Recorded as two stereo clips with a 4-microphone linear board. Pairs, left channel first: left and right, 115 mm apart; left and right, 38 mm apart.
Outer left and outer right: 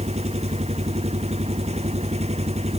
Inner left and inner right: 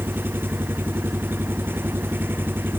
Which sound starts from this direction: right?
An engine running, at 0.0 s.